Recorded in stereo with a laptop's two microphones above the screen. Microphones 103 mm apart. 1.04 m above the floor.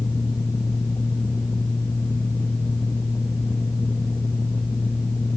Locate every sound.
0.0 s a fan: 35° left (ahead or behind), 0.7 m